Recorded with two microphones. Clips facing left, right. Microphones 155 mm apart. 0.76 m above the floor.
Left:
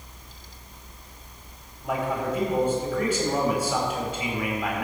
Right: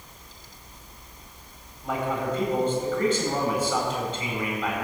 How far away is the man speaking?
About 4 m.